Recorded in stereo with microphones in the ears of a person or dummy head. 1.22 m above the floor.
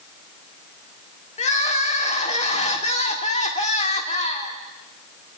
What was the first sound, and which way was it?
Crying, 35° left (ahead or behind).